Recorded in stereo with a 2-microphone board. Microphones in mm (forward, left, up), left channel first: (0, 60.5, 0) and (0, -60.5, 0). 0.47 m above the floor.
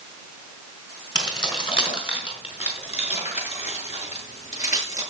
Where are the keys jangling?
35° left (ahead or behind), 4.5 m; by 5.0 s 75° left (ahead or behind), 6.5 m.